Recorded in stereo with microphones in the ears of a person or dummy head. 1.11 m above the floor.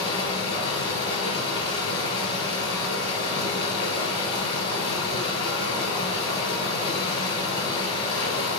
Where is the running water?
20° left (ahead or behind), 2.5 m.